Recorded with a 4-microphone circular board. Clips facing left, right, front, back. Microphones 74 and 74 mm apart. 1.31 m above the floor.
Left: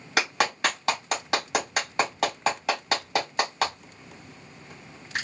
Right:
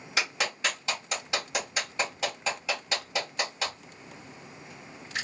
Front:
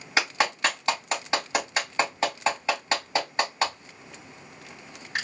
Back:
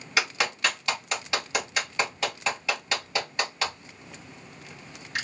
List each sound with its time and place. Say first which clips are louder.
0.2 s a clap: left 6 dB, front 2 dB; 65° left, 2.5 m